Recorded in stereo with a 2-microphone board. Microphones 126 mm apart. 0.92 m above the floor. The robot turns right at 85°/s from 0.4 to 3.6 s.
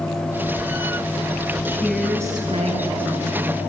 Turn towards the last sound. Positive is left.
turn(degrees=-40)